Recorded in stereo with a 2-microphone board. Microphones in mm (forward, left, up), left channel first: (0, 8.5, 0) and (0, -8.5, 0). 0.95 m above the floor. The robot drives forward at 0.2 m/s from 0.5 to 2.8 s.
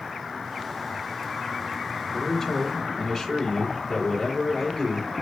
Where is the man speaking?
15° left (ahead or behind), 2.5 m.